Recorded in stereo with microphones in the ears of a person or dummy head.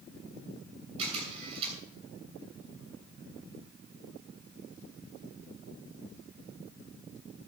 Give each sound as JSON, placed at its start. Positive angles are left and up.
{"t": 1.0, "sound": "a camera shutter", "side_deg": -30, "distance_m": 7.5}